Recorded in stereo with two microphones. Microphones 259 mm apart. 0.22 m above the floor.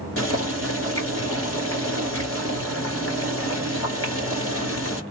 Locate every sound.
0.2 s boiling: 55° left (ahead or behind), 2 m